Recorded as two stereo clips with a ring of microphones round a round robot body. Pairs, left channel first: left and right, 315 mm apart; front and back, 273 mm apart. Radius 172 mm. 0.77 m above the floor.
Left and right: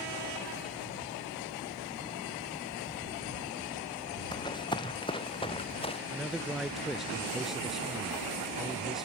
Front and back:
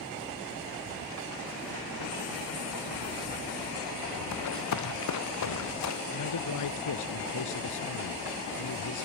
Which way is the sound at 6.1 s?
Straight ahead.